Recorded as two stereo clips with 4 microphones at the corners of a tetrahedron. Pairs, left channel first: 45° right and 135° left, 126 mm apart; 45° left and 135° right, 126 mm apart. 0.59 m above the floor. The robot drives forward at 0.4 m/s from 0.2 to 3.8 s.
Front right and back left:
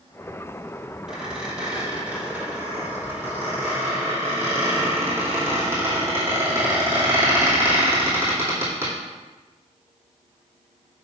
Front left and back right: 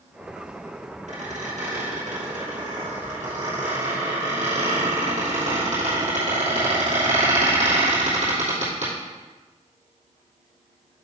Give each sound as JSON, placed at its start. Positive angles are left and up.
{"t": 1.1, "sound": "a squeak", "azimuth_deg": -140, "distance_m": 1.9}